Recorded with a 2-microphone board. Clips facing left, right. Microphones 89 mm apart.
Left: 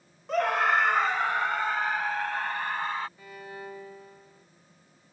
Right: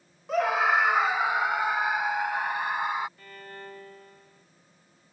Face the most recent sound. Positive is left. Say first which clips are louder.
# left 2 dB
turn(degrees=10)  # may be behind; listen again after turning